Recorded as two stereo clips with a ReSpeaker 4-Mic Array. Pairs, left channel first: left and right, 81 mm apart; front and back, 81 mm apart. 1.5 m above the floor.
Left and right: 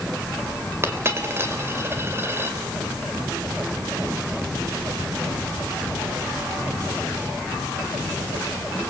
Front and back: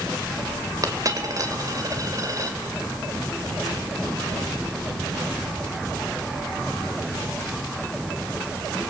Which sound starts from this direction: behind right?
A dropped coin, at 0.8 s.